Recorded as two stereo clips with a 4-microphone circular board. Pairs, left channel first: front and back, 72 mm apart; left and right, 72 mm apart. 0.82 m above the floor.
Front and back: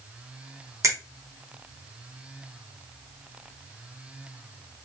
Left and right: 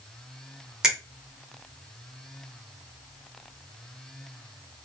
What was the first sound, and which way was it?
A finger snap, 170° right.